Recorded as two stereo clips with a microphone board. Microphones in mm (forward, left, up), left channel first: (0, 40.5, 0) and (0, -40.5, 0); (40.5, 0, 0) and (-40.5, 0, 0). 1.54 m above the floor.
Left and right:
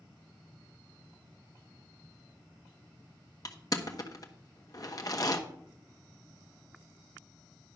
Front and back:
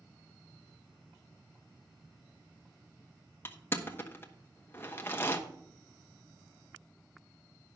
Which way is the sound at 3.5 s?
55° left.